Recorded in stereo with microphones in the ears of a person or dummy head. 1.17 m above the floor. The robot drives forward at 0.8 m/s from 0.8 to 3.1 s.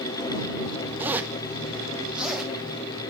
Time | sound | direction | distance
1.0 | a zipper | 10° right (ahead or behind) | 0.7 m